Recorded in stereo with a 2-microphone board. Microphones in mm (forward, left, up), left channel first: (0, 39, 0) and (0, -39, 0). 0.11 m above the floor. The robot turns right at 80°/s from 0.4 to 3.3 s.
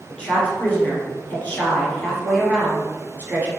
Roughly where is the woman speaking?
Centre.